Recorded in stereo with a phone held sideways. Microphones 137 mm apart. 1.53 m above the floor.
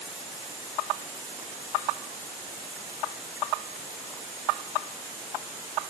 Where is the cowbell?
No cowbell in this recording.